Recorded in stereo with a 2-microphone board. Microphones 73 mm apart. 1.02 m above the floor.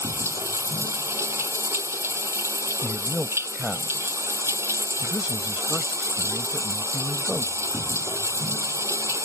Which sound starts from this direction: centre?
A man speaking, at 2.8 s.